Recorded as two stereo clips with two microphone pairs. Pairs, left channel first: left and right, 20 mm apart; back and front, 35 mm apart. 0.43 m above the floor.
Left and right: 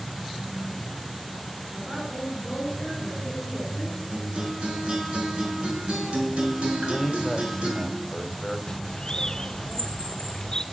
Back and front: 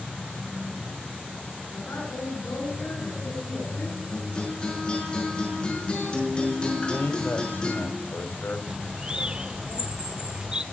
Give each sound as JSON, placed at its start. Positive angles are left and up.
{"t": 1.7, "sound": "a woman speaking", "azimuth_deg": -170, "distance_m": 5.5}
{"t": 4.1, "sound": "a guitar", "azimuth_deg": -120, "distance_m": 5.5}
{"t": 6.8, "sound": "a man speaking", "azimuth_deg": 165, "distance_m": 1.8}
{"t": 8.7, "sound": "a bird", "azimuth_deg": 45, "distance_m": 0.5}